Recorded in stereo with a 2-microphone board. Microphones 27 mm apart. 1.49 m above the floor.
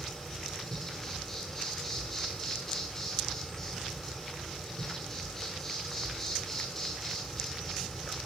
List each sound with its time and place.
0.0 s an insect: 10° left (ahead or behind), 7.5 m